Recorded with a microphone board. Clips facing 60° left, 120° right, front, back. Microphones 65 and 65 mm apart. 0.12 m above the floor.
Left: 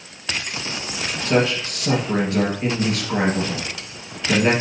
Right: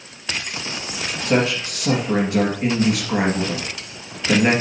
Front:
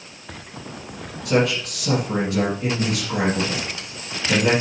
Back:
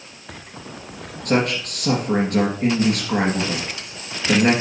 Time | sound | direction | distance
1.2 | a man speaking | 170° left | 2.5 m